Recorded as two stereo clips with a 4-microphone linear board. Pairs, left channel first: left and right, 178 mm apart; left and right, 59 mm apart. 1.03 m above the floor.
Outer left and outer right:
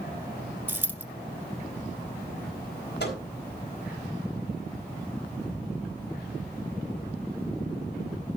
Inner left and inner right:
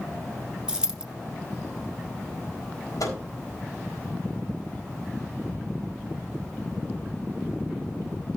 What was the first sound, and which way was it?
A dropped coin, 10° right (ahead or behind).